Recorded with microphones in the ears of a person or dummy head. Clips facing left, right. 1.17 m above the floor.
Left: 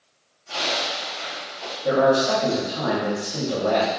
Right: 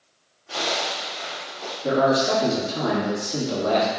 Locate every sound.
0.5 s a zipper: 15° right (ahead or behind), 1.0 m
1.8 s a man speaking: 40° right (ahead or behind), 1.9 m